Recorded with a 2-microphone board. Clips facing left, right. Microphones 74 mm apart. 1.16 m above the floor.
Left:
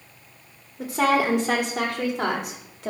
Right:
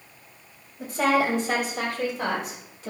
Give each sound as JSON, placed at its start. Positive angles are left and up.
{"t": 0.8, "sound": "a woman speaking", "side_deg": 85, "distance_m": 2.5}